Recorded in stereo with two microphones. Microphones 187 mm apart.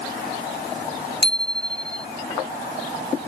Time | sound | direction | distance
1.2 | a bicycle bell | 70° left (ahead or behind) | ?